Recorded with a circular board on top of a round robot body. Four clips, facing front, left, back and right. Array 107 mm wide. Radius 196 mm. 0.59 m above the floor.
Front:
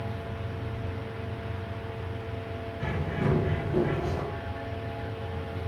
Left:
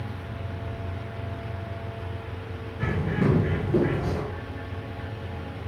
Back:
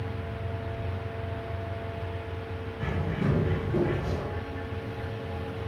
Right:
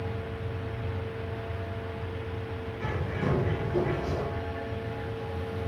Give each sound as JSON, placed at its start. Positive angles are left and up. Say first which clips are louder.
{"t": 2.8, "sound": "a bird", "louder": "left 7 dB, even", "azimuth_deg": 90, "distance_m": 2.5}